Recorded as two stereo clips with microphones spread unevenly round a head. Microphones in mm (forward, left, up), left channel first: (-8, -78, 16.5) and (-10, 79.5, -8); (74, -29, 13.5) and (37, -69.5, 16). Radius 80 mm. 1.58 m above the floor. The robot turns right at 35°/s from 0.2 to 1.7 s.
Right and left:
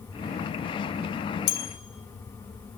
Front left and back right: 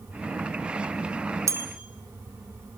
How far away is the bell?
About 5.5 m.